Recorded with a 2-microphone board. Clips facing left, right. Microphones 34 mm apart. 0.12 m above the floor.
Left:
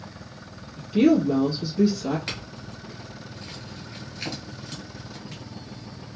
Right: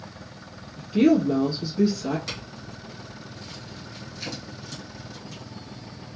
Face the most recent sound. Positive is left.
turn(degrees=35)  # may be behind; listen again after turning